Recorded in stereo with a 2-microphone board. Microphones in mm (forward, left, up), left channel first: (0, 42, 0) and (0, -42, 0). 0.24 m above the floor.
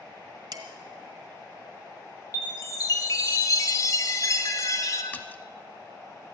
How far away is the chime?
About 1.3 m.